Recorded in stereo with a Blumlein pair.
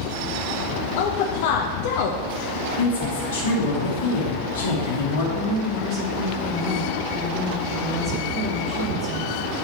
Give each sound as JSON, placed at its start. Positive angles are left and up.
{"t": 1.0, "sound": "a woman speaking", "azimuth_deg": 50, "distance_m": 0.7}
{"t": 2.6, "sound": "a woman speaking", "azimuth_deg": 65, "distance_m": 2.0}
{"t": 5.3, "sound": "a woman speaking", "azimuth_deg": -30, "distance_m": 1.7}